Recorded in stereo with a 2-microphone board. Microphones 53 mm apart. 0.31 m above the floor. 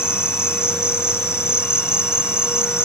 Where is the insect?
60° left (ahead or behind), 0.9 m.